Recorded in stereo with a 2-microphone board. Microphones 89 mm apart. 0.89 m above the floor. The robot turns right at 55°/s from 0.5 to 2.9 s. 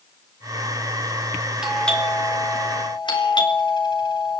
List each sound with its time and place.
1.6 s a doorbell: 5° right, 4 m; by 4.4 s 65° left, 4 m